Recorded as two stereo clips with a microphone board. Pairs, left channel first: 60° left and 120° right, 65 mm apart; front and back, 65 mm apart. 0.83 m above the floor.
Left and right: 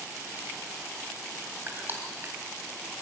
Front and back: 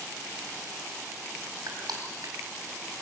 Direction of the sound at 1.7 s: 175° right.